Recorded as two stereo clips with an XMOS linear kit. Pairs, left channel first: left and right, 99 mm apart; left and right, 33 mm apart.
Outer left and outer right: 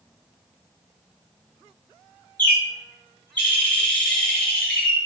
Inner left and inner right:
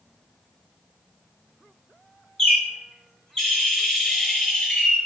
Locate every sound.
2.4 s a bird: 15° left (ahead or behind), 1.4 m